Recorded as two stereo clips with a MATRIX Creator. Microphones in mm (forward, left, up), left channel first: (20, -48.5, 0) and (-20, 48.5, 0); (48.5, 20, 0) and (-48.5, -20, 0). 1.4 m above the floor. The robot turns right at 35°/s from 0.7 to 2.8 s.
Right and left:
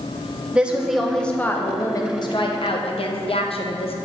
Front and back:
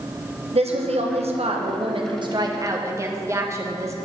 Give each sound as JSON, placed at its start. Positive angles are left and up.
{"t": 0.5, "sound": "a woman speaking", "azimuth_deg": -170, "distance_m": 0.9}